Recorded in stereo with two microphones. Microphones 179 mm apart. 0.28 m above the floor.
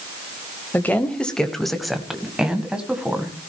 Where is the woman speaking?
10° left (ahead or behind), 1.2 m; by 3.3 s 10° right (ahead or behind), 2 m.